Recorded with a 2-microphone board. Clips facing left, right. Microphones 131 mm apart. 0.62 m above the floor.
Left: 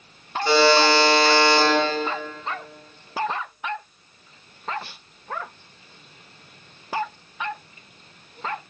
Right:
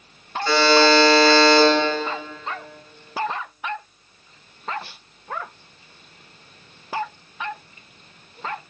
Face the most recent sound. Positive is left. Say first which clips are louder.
# right 1 dB
turn(degrees=25)  # may be behind; listen again after turning